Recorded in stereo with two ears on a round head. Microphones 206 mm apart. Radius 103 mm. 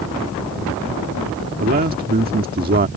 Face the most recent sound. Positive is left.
turn(degrees=-40)  # may be behind; listen again after turning